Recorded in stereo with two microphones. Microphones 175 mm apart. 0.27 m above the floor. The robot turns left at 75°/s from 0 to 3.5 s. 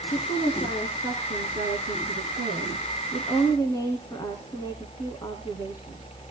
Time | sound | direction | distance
0.1 | a woman speaking | 50° left | 3 m